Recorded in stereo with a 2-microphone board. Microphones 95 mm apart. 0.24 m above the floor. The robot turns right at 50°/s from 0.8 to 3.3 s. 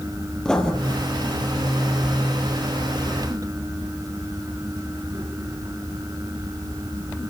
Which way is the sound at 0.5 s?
10° left (ahead or behind).